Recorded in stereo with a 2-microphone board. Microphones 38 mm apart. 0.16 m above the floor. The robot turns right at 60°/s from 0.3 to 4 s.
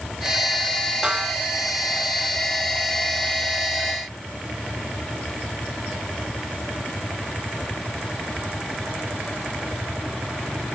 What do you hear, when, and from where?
1.0 s a snare drum: 25° right (ahead or behind), 1.2 m; by 1.4 s 30° right (ahead or behind), 1.2 m